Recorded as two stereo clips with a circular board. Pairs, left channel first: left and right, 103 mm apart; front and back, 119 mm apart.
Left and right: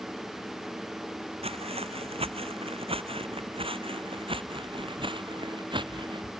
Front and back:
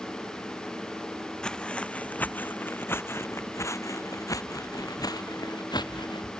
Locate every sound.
1.4 s footsteps: 85° right; by 6.3 s 50° right